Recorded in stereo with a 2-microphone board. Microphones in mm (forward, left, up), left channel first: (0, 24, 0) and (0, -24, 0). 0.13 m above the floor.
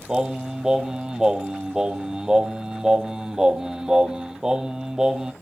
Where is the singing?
10° right (ahead or behind), 1.0 m.